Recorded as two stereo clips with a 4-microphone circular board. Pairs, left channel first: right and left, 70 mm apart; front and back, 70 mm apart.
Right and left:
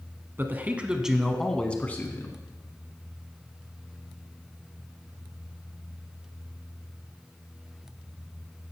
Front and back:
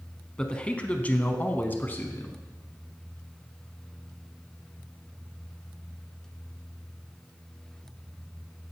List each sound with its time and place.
0.4 s a man speaking: 65° left, 1.2 m; by 2.4 s 50° right, 1.4 m